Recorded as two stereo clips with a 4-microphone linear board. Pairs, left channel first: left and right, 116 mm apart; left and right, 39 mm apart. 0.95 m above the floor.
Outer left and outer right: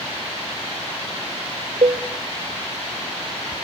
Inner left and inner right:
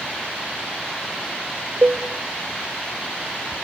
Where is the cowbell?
75° right (ahead or behind), 0.8 m.